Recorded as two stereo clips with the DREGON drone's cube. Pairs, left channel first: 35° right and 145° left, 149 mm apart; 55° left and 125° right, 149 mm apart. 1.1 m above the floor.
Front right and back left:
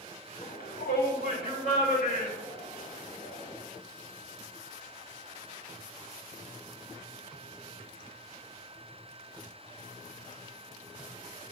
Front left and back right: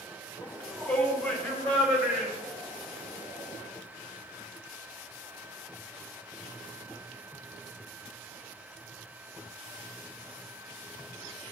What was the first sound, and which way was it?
A shout, 10° right.